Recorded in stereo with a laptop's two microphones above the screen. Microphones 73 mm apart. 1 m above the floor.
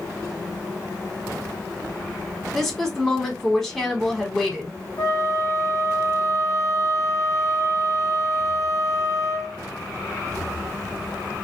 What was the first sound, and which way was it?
A woman speaking, 5° left (ahead or behind).